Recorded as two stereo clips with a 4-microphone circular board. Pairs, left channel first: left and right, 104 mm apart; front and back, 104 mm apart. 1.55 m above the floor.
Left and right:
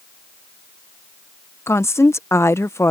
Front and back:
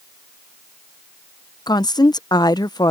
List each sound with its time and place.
1.7 s a woman speaking: 35° left